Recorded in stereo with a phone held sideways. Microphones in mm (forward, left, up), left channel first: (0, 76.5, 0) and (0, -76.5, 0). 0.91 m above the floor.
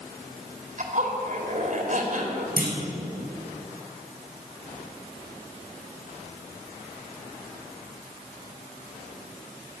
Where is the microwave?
I don't hear a microwave.